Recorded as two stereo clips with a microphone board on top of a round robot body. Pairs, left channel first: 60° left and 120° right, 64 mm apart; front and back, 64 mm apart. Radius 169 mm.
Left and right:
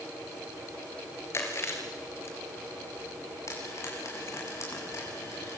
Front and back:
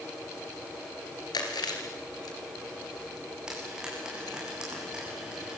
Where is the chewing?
10° left, 3.5 m.